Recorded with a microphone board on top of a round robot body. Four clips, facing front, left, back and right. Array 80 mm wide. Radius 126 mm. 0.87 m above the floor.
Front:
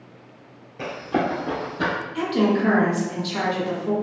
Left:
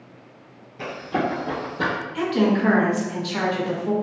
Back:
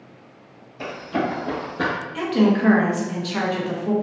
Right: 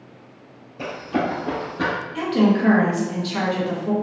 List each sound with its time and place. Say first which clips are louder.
0.8 s running footsteps: right 1 dB, front 1 dB; 20° left, 1.2 m; by 1.9 s 160° right, 0.9 m
2.1 s a woman speaking: right 2 dB, back 2 dB; 175° left, 0.9 m